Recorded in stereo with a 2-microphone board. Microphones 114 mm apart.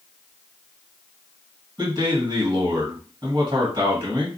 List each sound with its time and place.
1.8 s a man speaking: 40° right (ahead or behind), 1.9 m